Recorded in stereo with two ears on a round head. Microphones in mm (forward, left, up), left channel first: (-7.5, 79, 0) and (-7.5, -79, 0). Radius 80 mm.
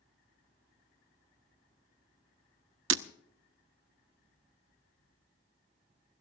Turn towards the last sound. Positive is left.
turn(degrees=-85)